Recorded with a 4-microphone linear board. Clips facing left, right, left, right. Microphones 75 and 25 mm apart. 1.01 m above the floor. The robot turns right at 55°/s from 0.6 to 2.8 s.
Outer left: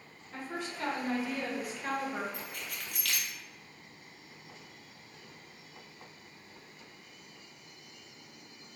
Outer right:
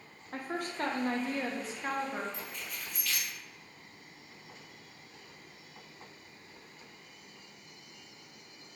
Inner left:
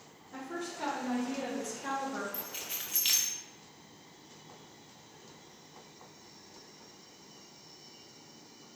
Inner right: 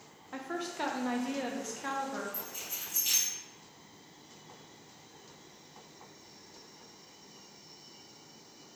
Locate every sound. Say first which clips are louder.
0.3 s a woman speaking: outer right 3 dB, inner right 2 dB; 95° right, 0.6 m; by 2.2 s 5° right, 0.6 m
2.3 s keys jangling: outer left 1 dB, inner left 1 dB; 50° left (ahead or behind), 0.6 m; by 3.3 s 75° left (ahead or behind), 0.6 m